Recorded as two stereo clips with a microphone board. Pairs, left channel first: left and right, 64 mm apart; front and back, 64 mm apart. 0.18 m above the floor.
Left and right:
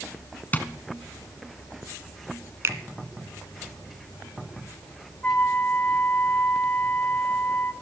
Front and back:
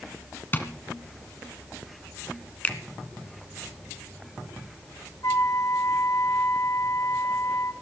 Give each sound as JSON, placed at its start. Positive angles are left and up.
{"t": 0.5, "sound": "tapping", "azimuth_deg": 40, "distance_m": 1.3}
{"t": 2.6, "sound": "a finger snap", "azimuth_deg": -60, "distance_m": 1.3}
{"t": 5.2, "sound": "a flute", "azimuth_deg": 25, "distance_m": 1.8}